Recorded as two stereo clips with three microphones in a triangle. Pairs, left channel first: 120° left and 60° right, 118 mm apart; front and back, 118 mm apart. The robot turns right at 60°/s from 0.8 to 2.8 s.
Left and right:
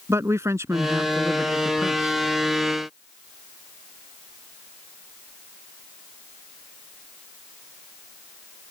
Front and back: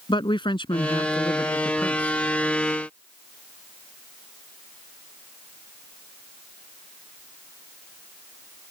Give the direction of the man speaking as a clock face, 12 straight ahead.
12 o'clock.